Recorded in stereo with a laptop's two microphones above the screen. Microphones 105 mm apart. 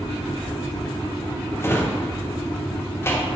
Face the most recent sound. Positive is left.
turn(degrees=25)  # may be behind; listen again after turning